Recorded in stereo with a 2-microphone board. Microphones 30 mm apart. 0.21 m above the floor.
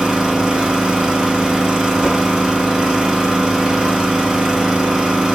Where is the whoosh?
15° left (ahead or behind), 1.3 m.